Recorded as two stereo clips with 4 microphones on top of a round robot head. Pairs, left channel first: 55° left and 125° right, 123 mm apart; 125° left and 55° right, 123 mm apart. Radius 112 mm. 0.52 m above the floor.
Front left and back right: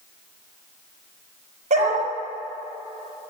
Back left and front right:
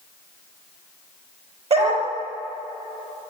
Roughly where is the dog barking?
Right.